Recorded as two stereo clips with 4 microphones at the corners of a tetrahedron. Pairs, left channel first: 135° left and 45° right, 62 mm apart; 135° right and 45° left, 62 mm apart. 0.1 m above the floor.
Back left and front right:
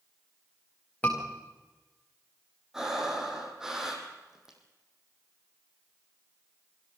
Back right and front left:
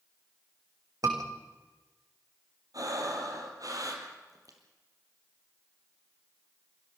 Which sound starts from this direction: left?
A scream, at 1.0 s.